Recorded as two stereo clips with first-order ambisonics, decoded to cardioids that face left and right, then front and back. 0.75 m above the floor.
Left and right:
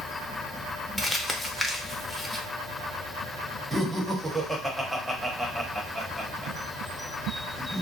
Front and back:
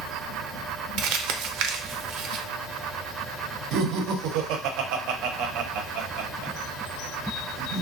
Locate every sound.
1.0 s crumpling: 175° left, 0.5 m
3.7 s laughter: 175° right, 0.7 m